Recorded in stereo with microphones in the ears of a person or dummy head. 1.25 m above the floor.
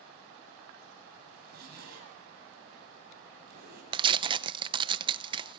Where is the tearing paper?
30° right (ahead or behind), 0.8 m.